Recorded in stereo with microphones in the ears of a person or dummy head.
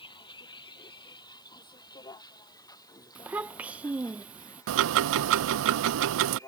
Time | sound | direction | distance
0.0 | a vehicle | 25° left (ahead or behind) | ?
3.1 | a child speaking | 10° right (ahead or behind) | ?
4.7 | ticking | 70° right (ahead or behind) | ?